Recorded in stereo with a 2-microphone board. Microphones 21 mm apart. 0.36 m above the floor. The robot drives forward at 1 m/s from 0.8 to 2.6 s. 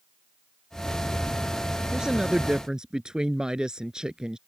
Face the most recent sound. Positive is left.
turn(degrees=-40)  # may be behind; listen again after turning